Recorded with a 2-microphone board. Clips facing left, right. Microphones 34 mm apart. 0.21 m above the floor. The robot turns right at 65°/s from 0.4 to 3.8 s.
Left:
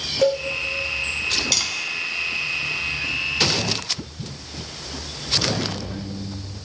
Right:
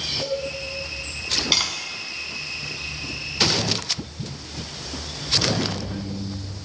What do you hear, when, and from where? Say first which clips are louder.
0.2 s a cowbell: left 11 dB; 75° left (ahead or behind), 7.5 m
1.5 s tapping: right 2 dB; 25° right (ahead or behind), 2 m; by 1.7 s 20° right (ahead or behind), 2 m